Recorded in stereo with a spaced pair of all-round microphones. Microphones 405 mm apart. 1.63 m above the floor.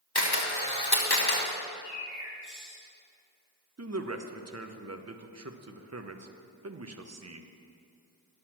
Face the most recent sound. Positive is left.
turn(degrees=-40)  # may be behind; listen again after turning